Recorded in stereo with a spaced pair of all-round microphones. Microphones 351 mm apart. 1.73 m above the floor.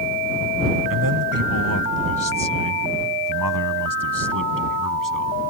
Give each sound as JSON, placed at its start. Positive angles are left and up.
{"t": 0.9, "sound": "a man speaking", "side_deg": -80}